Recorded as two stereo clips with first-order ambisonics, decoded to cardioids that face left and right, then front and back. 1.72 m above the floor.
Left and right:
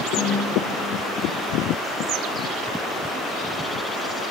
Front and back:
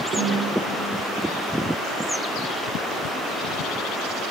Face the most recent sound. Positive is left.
turn(degrees=130)